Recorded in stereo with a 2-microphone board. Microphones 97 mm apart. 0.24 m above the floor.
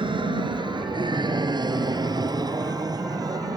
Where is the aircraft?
55° right (ahead or behind); by 3.6 s 35° right (ahead or behind).